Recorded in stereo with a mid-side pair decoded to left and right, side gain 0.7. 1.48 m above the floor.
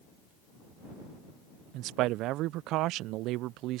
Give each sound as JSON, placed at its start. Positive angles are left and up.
{"t": 1.7, "sound": "a man speaking", "azimuth_deg": -60}